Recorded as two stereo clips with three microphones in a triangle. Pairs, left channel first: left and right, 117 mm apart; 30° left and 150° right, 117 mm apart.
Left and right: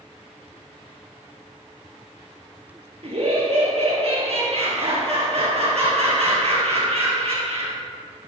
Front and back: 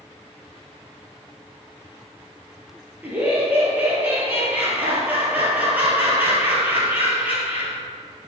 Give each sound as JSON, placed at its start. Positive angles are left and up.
{"t": 3.0, "sound": "laughter", "azimuth_deg": -75, "distance_m": 2.5}